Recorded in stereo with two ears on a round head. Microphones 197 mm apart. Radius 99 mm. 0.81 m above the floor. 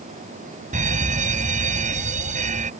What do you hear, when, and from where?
0.7 s a fire alarm: 35° right (ahead or behind)